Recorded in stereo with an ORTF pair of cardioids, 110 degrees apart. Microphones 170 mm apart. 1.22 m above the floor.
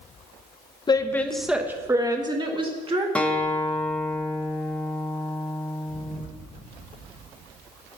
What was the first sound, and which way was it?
A woman speaking, 25° left.